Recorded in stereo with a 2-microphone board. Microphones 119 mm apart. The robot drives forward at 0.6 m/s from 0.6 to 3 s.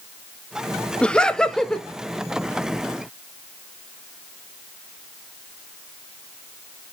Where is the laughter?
10° left (ahead or behind), 0.6 m; by 1.9 s 5° left (ahead or behind), 1.1 m.